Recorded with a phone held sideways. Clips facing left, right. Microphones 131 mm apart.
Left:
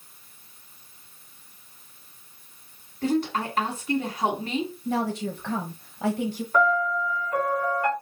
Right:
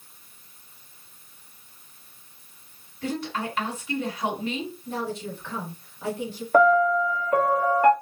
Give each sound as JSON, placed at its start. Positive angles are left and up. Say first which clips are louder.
{"t": 3.0, "sound": "a woman speaking", "louder": "left 5 dB", "side_deg": 45, "distance_m": 2.5}
{"t": 4.8, "sound": "a woman speaking", "louder": "left 4 dB", "side_deg": 70, "distance_m": 1.1}
{"t": 6.5, "sound": "a piano", "louder": "right 6 dB", "side_deg": -55, "distance_m": 0.8}